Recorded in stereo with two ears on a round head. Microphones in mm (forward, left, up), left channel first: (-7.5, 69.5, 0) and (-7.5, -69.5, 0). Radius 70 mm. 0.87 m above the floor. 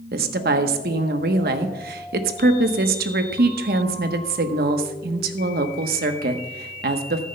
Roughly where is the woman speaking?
Right.